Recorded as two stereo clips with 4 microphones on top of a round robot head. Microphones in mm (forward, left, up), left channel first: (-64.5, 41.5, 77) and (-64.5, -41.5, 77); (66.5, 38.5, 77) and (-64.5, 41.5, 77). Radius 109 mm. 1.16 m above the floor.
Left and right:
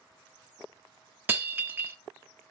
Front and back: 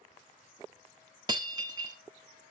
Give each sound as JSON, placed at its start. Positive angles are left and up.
{"t": 1.3, "sound": "breaking glass", "azimuth_deg": -140, "distance_m": 0.5}